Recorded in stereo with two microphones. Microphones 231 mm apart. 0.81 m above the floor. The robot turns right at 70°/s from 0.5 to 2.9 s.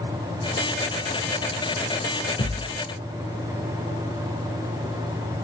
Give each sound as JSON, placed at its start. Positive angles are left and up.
{"t": 2.4, "sound": "a thud", "side_deg": 50, "distance_m": 1.9}